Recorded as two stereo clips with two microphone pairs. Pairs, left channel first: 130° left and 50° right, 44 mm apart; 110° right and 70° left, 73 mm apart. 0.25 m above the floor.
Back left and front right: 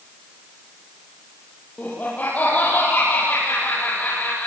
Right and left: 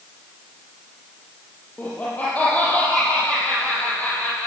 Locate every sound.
1.8 s laughter: straight behind, 7 m